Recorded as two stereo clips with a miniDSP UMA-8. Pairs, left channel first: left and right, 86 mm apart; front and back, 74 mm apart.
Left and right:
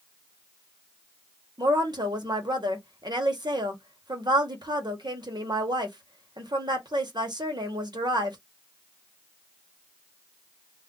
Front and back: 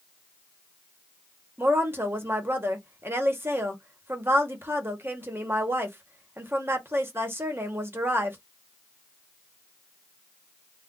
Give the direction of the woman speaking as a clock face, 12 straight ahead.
4 o'clock.